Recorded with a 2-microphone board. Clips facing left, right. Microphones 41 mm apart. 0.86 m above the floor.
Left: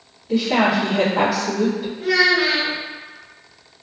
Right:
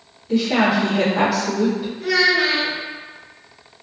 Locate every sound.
0.3 s a woman speaking: centre (ahead or behind), 1.5 m
2.0 s a child speaking: 20° left (ahead or behind), 1.3 m